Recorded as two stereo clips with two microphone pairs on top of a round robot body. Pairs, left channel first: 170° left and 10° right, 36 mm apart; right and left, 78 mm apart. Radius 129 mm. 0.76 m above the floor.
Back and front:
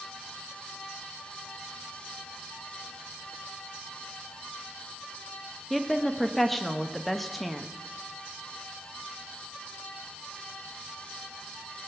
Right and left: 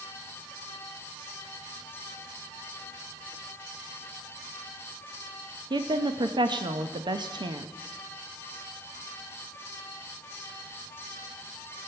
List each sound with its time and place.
5.7 s a woman speaking: 75° left, 0.8 m